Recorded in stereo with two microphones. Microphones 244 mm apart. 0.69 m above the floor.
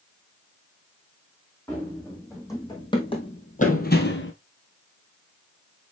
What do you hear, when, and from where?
1.7 s running footsteps: 5° left (ahead or behind), 3.5 m; by 4.3 s 55° left (ahead or behind), 1.2 m